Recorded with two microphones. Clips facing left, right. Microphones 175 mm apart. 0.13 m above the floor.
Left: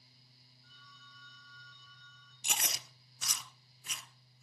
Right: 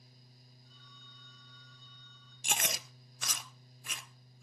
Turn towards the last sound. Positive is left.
turn(degrees=-70)  # may be behind; listen again after turning